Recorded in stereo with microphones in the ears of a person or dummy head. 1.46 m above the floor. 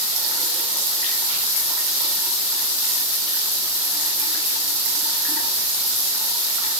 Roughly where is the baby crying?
No baby crying in this recording.